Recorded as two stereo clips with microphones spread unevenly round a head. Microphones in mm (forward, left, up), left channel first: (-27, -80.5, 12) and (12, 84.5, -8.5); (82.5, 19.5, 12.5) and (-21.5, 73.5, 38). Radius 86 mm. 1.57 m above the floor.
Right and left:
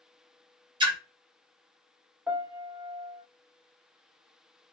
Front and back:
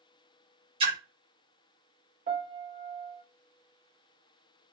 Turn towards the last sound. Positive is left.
turn(degrees=160)